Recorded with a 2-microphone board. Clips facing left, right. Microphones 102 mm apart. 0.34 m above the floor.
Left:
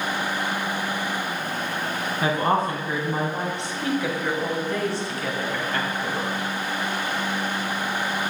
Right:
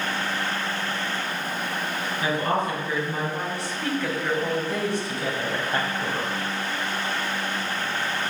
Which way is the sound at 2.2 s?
45° left (ahead or behind).